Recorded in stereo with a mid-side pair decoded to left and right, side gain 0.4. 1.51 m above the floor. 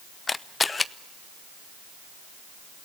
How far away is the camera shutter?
About 0.9 m.